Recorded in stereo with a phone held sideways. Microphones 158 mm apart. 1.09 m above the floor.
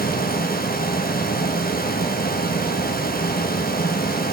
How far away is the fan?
About 1.2 m.